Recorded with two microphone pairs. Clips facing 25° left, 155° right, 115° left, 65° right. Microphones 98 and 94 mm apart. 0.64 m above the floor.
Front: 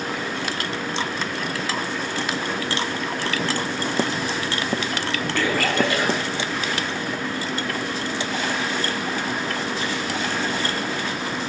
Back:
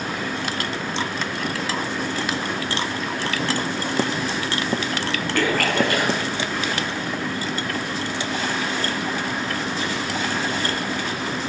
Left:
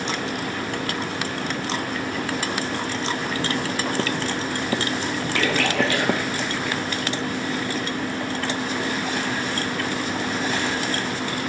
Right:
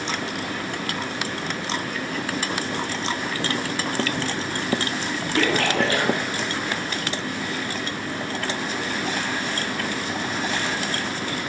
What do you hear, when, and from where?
5.3 s a splash: 115° right, 3.5 m